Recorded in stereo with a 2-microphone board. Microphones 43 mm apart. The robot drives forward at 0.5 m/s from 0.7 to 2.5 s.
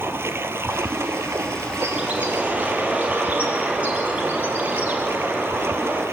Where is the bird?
30° right (ahead or behind), 4.5 m; by 6.0 s 35° right (ahead or behind), 4 m.